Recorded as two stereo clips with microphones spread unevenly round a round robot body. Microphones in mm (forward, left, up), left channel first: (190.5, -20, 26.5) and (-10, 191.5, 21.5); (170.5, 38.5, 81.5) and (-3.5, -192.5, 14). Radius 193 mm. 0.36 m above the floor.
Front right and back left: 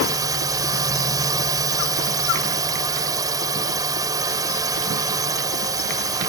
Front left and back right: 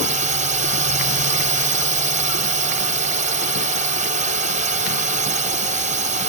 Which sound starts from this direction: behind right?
A drone, at 0.0 s.